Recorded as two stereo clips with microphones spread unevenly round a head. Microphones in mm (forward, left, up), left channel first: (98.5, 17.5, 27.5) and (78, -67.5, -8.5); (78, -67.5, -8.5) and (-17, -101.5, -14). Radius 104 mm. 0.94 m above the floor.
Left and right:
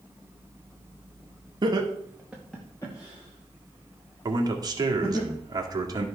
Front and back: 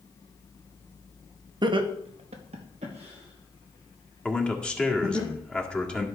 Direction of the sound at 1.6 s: 120° right.